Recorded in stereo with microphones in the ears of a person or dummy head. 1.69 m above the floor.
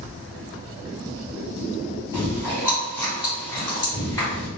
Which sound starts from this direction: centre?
Chewing, at 2.1 s.